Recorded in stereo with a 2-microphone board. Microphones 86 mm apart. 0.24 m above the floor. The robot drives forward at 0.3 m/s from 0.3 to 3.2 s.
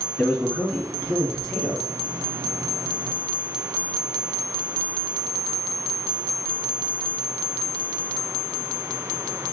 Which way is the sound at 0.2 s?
15° left (ahead or behind).